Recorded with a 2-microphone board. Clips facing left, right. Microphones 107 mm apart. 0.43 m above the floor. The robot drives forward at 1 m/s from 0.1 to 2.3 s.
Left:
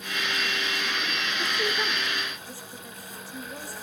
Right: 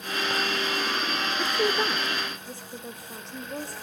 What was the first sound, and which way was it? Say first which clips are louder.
A woman speaking: right 4 dB; 30° right (ahead or behind).